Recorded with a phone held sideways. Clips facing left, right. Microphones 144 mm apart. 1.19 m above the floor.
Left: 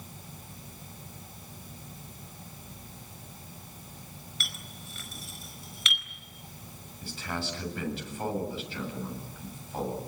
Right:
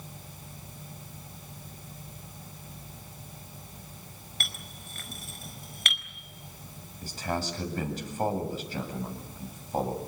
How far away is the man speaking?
About 8 m.